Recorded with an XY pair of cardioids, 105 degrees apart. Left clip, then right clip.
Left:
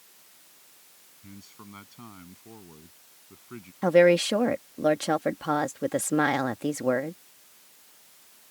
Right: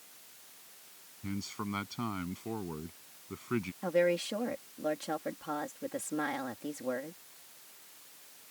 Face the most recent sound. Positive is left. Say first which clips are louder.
# left 11 dB
turn(degrees=70)